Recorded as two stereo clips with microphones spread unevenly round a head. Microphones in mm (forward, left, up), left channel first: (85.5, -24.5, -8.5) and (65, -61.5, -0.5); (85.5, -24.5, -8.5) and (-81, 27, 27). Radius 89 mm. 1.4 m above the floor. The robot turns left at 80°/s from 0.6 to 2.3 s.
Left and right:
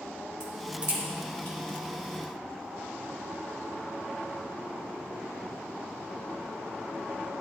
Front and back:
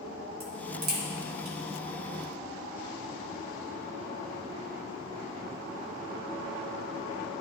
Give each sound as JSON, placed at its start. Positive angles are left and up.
{"t": 0.4, "sound": "a crack", "azimuth_deg": -150, "distance_m": 1.7}